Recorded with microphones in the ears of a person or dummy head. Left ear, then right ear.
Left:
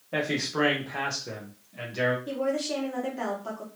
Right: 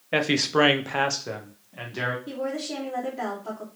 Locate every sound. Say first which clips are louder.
0.1 s a man speaking: right 6 dB; 80° right, 0.6 m; by 2.2 s 10° right (ahead or behind), 0.9 m
2.3 s a woman speaking: left 2 dB; 30° left (ahead or behind), 1.3 m